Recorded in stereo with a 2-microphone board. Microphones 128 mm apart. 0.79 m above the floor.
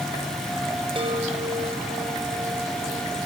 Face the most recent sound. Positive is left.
turn(degrees=-40)  # may be behind; listen again after turning